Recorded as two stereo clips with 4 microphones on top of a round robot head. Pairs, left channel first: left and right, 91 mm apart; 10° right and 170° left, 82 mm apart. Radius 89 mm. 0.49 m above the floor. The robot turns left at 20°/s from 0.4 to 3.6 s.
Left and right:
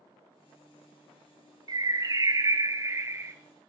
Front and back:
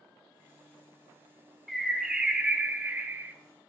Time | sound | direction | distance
1.7 | a bird | 100° right | 0.9 m